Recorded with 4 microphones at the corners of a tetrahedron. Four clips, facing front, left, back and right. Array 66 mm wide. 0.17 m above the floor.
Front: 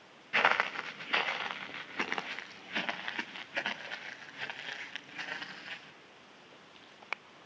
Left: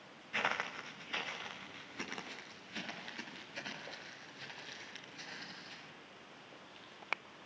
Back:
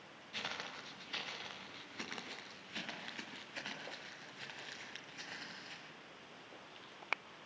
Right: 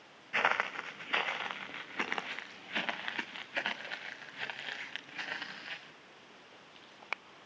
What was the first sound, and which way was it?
Footsteps, 20° right.